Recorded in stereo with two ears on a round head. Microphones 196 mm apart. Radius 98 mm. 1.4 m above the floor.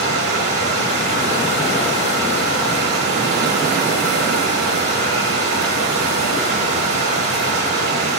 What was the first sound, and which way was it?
Running water, 40° right (ahead or behind).